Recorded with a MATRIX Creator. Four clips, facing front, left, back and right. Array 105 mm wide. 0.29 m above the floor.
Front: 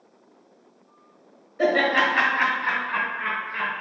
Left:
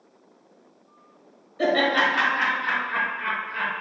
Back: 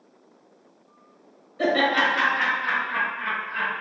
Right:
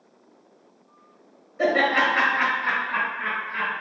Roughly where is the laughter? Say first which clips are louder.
Even, front 1 dB; ahead right.